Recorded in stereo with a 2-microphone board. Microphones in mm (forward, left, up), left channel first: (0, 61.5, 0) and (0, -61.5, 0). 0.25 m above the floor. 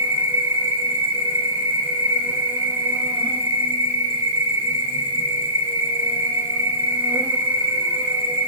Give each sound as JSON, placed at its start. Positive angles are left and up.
{"t": 0.0, "sound": "an insect", "side_deg": -15, "distance_m": 2.5}